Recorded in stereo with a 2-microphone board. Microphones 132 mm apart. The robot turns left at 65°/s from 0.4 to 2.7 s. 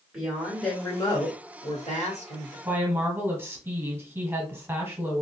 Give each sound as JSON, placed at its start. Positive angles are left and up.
{"t": 0.1, "sound": "a woman speaking", "azimuth_deg": -170, "distance_m": 1.9}
{"t": 2.6, "sound": "a woman speaking", "side_deg": -20, "distance_m": 1.3}